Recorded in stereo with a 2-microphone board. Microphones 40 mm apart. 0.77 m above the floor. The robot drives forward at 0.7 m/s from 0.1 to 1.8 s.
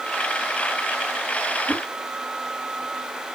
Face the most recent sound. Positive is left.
turn(degrees=-35)  # may be behind; listen again after turning